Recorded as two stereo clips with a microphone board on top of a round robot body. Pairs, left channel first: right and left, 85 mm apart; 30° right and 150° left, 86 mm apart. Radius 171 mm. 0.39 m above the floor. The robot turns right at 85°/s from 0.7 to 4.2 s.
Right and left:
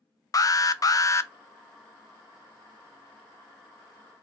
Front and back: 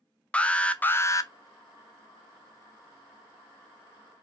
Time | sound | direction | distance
0.3 | an alarm | 100° right | 0.6 m